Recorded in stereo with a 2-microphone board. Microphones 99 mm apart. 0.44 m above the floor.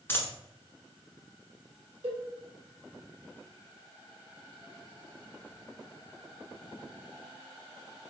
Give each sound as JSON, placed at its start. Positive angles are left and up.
{"t": 0.1, "sound": "a dropped coin", "side_deg": 20, "distance_m": 1.2}
{"t": 2.0, "sound": "a cowbell", "side_deg": -60, "distance_m": 1.8}